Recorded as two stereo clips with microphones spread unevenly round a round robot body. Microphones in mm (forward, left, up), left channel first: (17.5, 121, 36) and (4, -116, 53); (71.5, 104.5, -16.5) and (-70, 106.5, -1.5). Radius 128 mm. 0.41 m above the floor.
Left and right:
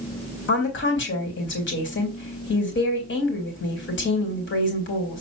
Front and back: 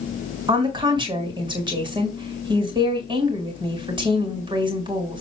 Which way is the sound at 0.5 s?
120° left.